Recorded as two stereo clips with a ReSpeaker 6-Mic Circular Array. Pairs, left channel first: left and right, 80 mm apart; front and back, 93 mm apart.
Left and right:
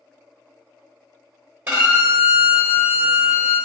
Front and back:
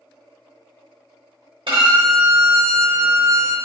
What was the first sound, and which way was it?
A violin, 155° right.